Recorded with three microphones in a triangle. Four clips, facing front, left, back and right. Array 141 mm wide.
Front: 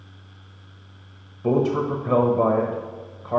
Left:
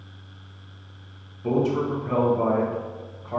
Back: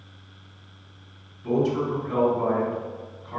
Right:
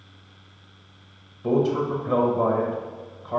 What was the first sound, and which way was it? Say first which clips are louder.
A man speaking: right 1 dB, front 3 dB; 10° right.